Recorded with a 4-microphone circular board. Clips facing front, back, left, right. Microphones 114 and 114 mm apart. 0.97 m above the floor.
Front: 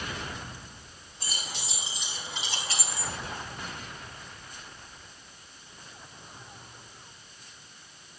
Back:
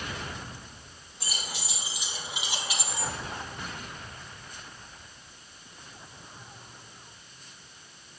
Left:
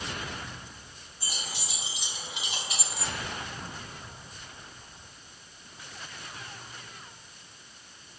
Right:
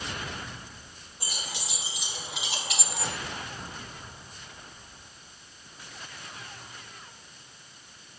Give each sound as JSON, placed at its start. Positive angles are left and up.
{"t": 1.2, "sound": "keys jangling", "azimuth_deg": -95, "distance_m": 3.5}